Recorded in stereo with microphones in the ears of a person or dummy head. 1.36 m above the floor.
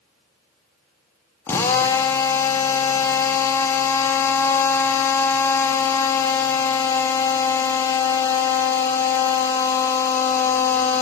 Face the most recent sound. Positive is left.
turn(degrees=15)  # may be behind; listen again after turning